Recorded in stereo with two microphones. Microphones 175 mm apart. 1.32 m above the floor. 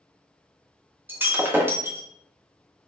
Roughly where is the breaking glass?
Centre.